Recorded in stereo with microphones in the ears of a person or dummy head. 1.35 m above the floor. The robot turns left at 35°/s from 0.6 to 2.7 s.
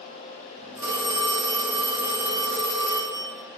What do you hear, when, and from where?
0.8 s a phone ringing: 20° right, 1.4 m; by 3.3 s 85° right, 1.4 m